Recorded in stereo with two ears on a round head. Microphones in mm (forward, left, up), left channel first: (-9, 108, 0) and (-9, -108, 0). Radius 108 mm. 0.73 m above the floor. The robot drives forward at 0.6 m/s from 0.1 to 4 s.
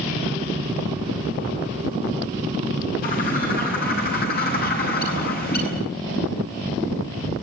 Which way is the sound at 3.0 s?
40° left (ahead or behind).